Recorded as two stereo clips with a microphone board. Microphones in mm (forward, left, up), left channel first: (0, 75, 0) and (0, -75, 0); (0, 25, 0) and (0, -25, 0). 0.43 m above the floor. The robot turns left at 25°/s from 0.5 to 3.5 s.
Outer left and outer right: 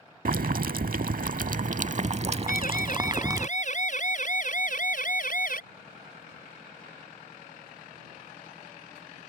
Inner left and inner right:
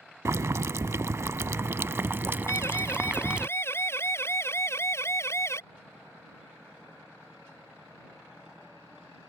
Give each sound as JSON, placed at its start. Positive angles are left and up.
{"t": 0.2, "sound": "boiling", "azimuth_deg": -85}
{"t": 2.5, "sound": "a siren", "side_deg": 70}